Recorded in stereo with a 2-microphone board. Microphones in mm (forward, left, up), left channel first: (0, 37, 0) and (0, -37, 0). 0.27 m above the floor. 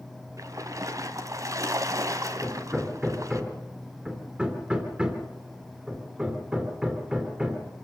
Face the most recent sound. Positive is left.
turn(degrees=-15)  # may be behind; listen again after turning